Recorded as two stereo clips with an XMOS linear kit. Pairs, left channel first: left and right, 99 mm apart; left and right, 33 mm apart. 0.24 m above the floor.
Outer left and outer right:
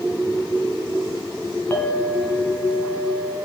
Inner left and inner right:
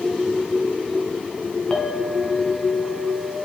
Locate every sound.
1.7 s a clink: 20° left (ahead or behind), 1.3 m